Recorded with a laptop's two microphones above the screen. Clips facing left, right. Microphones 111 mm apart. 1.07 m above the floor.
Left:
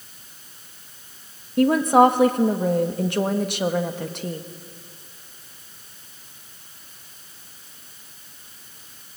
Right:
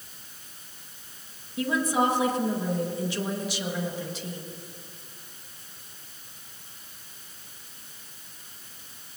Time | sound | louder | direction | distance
1.6 | a woman speaking | left 10 dB | 60° left (ahead or behind) | 1.3 m